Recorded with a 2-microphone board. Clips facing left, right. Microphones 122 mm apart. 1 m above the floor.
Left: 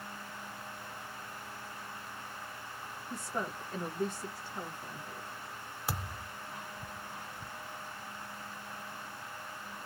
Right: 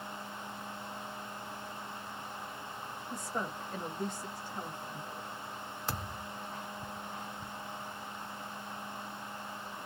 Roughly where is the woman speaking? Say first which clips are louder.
Even; centre.